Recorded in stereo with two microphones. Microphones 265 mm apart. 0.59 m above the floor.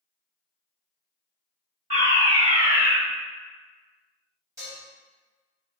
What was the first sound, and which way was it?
A fire alarm, 10° right (ahead or behind).